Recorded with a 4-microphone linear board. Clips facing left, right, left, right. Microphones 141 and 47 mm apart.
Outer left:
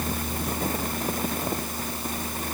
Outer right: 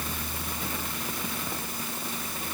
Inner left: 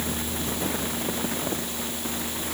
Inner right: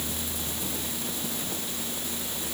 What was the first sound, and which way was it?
Only background noise.